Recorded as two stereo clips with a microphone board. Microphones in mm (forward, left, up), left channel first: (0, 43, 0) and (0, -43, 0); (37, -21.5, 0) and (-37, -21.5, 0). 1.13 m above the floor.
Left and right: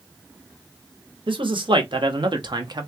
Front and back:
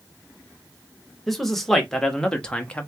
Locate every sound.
1.3 s a man speaking: 90° right, 1.7 m; by 2.9 s 70° right, 1.0 m